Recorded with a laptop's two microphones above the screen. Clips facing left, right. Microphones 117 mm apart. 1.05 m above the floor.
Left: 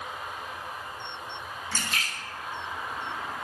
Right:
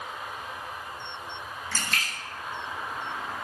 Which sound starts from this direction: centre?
A splash, at 1.7 s.